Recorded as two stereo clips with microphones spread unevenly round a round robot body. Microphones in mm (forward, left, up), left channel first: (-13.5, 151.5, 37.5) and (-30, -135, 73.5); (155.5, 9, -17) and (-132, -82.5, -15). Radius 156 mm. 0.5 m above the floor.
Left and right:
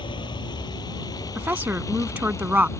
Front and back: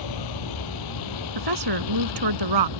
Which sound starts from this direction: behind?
A woman speaking, at 1.4 s.